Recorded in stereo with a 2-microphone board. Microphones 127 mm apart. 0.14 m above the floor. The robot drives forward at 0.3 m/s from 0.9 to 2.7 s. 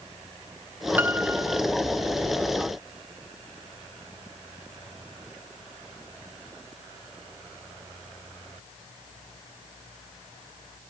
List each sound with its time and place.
1.0 s a piano: 15° right (ahead or behind)